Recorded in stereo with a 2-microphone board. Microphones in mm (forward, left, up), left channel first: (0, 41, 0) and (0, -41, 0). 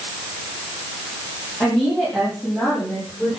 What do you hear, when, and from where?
1.6 s a woman speaking: 20° left (ahead or behind), 8 m; by 3.4 s 10° left (ahead or behind), 8 m